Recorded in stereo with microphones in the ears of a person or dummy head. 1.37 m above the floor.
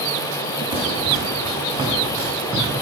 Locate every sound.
0.7 s running footsteps: 20° right (ahead or behind), 3 m; by 2.8 s 10° right (ahead or behind), 5 m